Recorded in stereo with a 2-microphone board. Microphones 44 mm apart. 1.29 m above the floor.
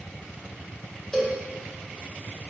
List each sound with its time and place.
1.1 s a cowbell: 15° left (ahead or behind), 1.2 m